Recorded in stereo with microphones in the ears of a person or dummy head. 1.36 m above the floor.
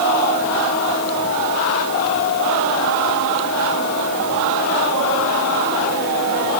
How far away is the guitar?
No guitar in this recording.